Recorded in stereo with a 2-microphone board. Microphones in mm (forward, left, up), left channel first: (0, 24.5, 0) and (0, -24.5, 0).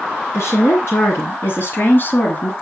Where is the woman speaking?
65° left (ahead or behind), 2 m; by 2.5 s 35° left (ahead or behind), 1.4 m.